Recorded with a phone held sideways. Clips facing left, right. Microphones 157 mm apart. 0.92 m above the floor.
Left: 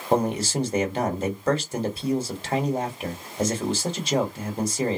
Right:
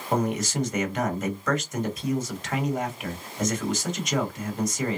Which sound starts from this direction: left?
A man speaking, at 0.1 s.